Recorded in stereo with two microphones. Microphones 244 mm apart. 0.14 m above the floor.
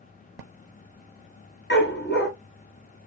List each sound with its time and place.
1.7 s a dog barking: 45° left (ahead or behind), 1.2 m